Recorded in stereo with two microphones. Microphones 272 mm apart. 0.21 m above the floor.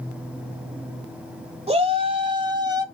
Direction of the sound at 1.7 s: 20° right (ahead or behind).